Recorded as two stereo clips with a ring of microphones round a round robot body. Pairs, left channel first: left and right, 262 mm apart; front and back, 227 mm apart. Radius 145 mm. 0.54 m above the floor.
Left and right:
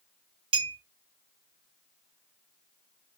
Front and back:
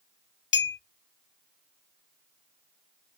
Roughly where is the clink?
Ahead right.